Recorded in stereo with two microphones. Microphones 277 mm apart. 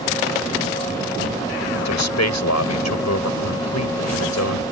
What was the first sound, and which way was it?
A man speaking, 75° left (ahead or behind).